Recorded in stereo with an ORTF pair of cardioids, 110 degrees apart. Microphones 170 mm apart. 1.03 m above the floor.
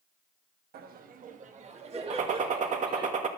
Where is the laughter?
65° right, 1.2 m; by 3.1 s 25° right, 2.5 m.